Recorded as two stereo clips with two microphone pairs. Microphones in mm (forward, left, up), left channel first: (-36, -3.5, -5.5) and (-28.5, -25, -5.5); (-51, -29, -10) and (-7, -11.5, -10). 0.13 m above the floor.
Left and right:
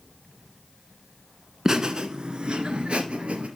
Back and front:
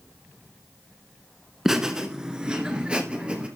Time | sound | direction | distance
1.6 | laughter | 55° right | 1.3 m